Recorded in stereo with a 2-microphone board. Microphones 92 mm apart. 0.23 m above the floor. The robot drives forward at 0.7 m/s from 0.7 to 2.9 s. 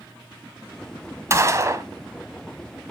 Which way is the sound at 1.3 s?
30° right (ahead or behind).